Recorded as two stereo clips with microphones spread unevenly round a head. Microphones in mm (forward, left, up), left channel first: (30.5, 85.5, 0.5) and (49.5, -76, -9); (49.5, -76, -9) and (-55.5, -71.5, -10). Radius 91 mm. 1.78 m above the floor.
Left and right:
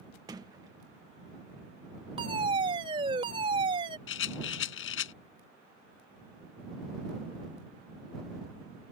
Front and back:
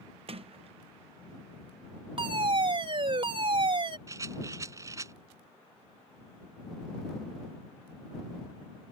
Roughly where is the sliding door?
Behind right.